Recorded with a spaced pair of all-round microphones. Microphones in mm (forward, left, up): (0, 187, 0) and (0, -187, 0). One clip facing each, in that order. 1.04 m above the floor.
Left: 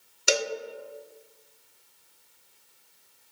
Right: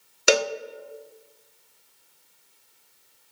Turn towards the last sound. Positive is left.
turn(degrees=-75)  # may be behind; listen again after turning